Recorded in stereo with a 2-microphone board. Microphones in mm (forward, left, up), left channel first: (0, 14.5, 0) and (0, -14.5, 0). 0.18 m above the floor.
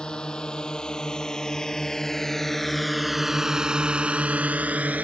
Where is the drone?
30° left (ahead or behind); by 5.0 s 60° right (ahead or behind).